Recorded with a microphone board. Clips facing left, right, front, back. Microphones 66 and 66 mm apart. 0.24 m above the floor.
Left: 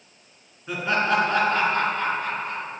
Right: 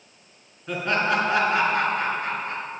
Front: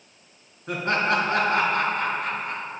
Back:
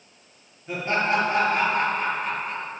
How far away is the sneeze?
No sneeze in this recording.